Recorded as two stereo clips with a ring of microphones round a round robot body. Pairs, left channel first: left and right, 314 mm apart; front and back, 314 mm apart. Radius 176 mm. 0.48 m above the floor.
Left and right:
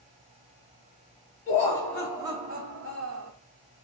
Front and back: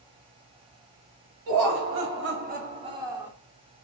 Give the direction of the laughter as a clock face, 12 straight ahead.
7 o'clock.